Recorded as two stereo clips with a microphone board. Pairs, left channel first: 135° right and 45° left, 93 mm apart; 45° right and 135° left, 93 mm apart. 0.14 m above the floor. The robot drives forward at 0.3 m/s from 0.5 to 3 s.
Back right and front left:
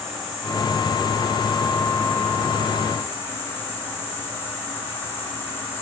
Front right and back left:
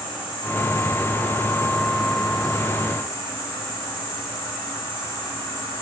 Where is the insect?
40° right, 1.4 m; by 5.8 s 85° right, 1.2 m.